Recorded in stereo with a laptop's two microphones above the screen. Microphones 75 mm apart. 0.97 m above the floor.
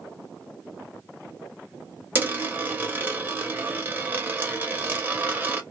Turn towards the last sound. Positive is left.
turn(degrees=-25)  # may be behind; listen again after turning